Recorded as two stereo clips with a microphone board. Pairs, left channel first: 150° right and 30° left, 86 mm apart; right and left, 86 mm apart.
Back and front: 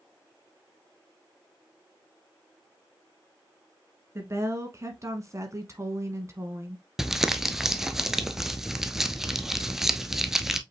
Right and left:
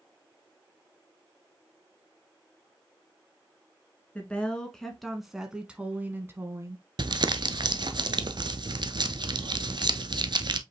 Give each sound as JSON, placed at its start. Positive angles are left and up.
{"t": 4.2, "sound": "a woman speaking", "azimuth_deg": -20, "distance_m": 1.6}
{"t": 7.0, "sound": "crumpling", "azimuth_deg": 115, "distance_m": 0.5}